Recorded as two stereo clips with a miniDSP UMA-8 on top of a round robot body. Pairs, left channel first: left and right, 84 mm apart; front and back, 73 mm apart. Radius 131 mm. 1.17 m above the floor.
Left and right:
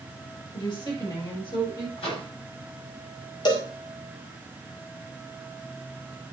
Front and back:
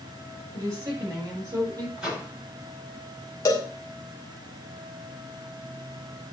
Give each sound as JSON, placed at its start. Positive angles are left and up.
{"t": 0.5, "sound": "a woman speaking", "azimuth_deg": 130, "distance_m": 6.0}
{"t": 2.0, "sound": "a microwave", "azimuth_deg": 105, "distance_m": 8.5}
{"t": 3.5, "sound": "a cowbell", "azimuth_deg": 55, "distance_m": 2.0}